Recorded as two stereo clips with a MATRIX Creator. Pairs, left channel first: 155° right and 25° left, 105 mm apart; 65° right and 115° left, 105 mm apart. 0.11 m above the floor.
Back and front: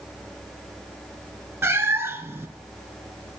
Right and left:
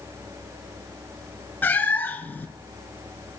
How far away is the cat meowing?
About 0.6 m.